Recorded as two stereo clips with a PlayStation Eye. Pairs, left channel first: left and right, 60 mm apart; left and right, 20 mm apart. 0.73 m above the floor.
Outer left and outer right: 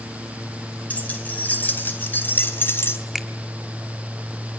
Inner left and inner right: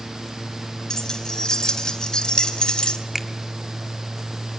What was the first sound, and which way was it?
Keys jangling, 25° left (ahead or behind).